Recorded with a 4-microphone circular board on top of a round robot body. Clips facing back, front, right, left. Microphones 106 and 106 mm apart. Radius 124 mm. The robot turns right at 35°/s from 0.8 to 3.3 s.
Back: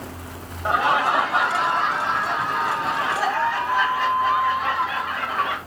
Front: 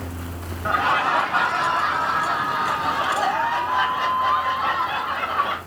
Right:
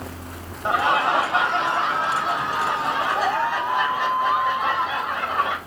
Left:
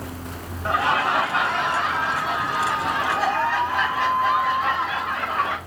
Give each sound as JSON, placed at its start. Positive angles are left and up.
{"t": 0.7, "sound": "laughter", "azimuth_deg": -130, "distance_m": 1.3}